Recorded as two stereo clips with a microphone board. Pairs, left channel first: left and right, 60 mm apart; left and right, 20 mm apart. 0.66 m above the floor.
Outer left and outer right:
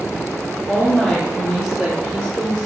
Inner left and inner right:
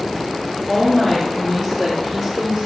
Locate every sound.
0.7 s a woman speaking: 25° left (ahead or behind), 1.3 m; by 2.7 s 40° right (ahead or behind), 1.6 m